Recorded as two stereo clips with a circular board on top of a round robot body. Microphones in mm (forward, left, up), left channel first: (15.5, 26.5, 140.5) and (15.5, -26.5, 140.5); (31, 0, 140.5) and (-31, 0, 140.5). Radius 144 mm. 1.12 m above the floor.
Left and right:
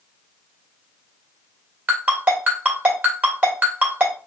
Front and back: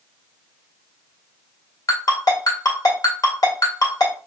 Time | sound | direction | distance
1.9 | a ringtone | 35° right | 1.6 m